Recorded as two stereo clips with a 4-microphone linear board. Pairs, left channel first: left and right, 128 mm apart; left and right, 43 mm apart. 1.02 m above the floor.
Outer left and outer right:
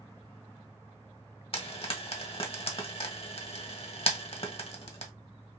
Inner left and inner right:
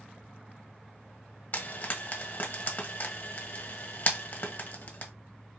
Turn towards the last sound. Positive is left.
turn(degrees=45)  # may be behind; listen again after turning